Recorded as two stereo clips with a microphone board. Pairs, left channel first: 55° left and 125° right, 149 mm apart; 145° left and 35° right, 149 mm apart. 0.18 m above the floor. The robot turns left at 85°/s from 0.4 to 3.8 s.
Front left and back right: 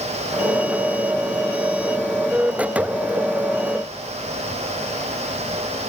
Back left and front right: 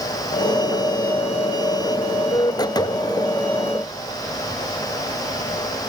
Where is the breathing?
No breathing in this recording.